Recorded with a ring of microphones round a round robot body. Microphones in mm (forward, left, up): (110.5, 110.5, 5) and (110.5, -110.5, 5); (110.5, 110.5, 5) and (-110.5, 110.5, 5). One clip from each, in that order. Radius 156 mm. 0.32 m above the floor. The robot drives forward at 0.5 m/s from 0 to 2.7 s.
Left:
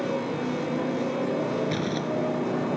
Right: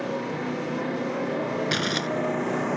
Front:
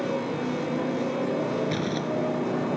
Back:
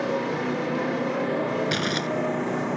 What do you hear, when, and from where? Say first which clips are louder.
0.0 s a motorcycle: left 1 dB, back 2 dB; 150° right; by 2.8 s 120° right
1.7 s crumpling: right 3 dB, back 3 dB; 125° right; by 2.1 s 130° right